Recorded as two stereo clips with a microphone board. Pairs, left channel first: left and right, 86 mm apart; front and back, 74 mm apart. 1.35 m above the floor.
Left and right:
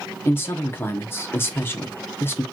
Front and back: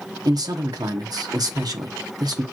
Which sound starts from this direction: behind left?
A man speaking, at 0.2 s.